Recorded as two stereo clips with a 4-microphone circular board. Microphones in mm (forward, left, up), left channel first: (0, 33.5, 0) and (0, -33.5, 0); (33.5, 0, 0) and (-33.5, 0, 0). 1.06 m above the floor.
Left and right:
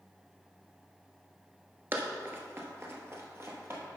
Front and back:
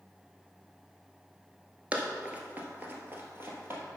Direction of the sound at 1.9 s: 125° right.